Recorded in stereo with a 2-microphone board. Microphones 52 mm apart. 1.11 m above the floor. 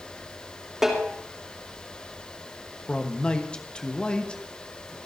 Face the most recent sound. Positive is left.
turn(degrees=20)  # may be behind; listen again after turning